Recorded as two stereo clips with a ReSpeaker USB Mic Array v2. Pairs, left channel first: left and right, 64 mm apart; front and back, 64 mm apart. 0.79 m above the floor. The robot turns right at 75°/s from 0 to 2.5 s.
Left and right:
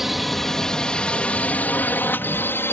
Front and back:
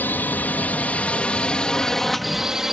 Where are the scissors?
I don't hear scissors.